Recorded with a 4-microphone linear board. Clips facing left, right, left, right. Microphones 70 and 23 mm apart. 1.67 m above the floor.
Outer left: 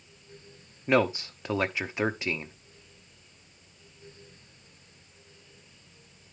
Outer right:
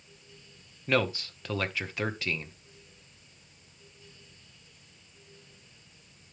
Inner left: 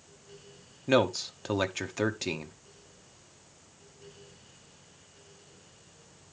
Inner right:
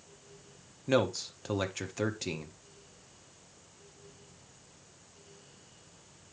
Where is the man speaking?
20° left (ahead or behind), 0.9 m.